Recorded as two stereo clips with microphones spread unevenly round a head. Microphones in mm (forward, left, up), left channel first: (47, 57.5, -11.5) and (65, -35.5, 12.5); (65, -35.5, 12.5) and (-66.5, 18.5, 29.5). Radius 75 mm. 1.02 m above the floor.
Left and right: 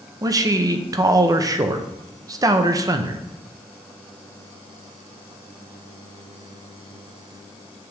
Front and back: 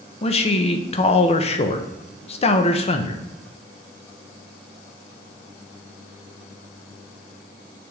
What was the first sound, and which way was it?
A man speaking, 25° right.